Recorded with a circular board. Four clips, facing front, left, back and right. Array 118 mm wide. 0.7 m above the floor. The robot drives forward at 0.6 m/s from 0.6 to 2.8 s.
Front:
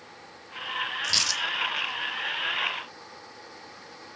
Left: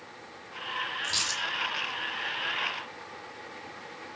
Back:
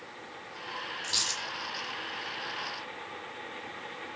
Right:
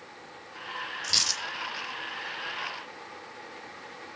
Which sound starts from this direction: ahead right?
A dropped coin, at 1.0 s.